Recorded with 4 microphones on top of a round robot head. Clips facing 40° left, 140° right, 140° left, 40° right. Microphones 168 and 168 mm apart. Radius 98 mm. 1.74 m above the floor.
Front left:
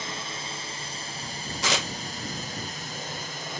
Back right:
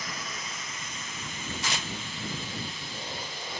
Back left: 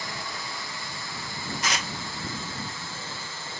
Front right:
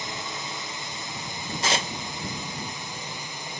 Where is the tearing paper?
20° left.